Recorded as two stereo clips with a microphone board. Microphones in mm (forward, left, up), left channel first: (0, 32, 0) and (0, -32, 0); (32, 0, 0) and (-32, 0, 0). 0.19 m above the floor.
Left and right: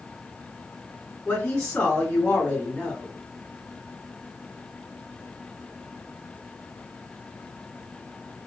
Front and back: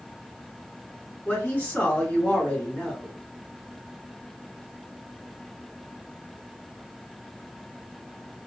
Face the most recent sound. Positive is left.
turn(degrees=35)